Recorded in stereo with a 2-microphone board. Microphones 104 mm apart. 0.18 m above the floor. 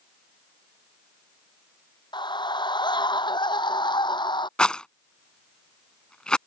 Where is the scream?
45° left (ahead or behind).